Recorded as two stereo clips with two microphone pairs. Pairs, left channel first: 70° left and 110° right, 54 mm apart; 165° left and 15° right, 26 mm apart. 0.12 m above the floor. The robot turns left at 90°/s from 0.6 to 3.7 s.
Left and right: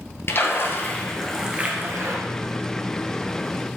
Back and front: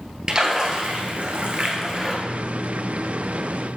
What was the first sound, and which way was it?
A splash, 45° left.